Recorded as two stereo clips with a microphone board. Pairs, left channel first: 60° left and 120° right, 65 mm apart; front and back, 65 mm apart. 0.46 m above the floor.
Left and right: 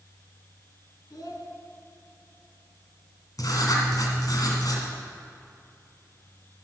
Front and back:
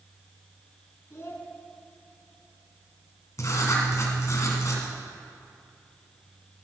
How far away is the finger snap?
I don't hear a finger snap.